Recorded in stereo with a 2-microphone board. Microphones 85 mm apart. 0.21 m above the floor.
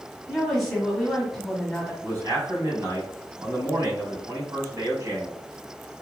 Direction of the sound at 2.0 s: 40° right (ahead or behind).